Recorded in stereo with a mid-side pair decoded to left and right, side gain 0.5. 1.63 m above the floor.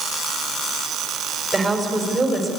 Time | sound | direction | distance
1.5 | a woman speaking | 25° right | 6.5 m